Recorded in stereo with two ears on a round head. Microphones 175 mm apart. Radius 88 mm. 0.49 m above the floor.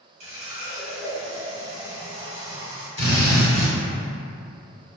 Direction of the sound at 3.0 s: 30° left (ahead or behind).